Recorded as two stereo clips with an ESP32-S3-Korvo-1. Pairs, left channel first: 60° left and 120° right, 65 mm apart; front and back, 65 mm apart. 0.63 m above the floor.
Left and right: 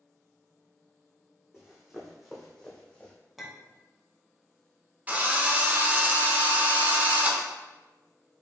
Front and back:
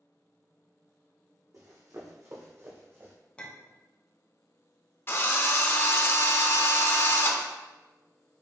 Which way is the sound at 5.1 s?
55° right.